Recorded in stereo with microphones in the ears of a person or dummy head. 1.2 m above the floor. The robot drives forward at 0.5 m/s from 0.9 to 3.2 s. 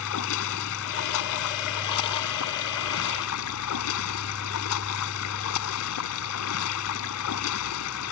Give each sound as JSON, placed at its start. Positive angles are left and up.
{"t": 0.0, "sound": "running water", "side_deg": 80}